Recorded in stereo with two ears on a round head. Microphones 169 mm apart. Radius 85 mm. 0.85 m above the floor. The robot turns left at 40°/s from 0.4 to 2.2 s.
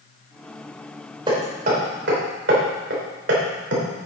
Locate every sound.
1.3 s hammering: 25° right (ahead or behind), 3 m; by 4.1 s 60° right (ahead or behind), 3 m